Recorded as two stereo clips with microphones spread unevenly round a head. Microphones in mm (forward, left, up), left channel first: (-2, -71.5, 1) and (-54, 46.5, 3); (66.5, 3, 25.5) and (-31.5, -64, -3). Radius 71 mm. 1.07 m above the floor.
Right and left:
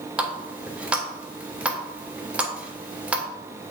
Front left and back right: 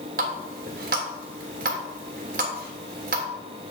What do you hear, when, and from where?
0.2 s a running tap: 165° right, 2.5 m